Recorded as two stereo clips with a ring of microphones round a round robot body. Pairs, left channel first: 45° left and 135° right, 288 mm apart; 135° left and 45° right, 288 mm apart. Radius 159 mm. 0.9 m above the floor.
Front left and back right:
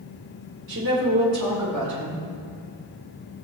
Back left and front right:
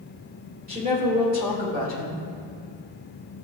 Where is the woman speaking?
105° right, 3.5 m.